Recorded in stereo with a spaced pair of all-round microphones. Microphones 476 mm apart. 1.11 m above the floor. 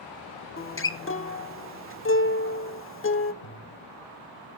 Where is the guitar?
30° left (ahead or behind), 0.5 m.